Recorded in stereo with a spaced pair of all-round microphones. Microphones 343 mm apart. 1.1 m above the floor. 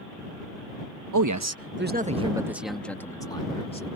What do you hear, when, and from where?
1.1 s a man speaking: 65° right (ahead or behind); by 3.9 s 15° left (ahead or behind)